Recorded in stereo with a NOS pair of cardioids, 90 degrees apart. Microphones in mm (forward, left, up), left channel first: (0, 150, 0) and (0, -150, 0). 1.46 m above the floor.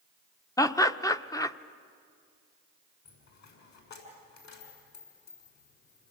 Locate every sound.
0.6 s laughter: 10° left, 1.0 m
3.0 s a dropped coin: 65° left, 7 m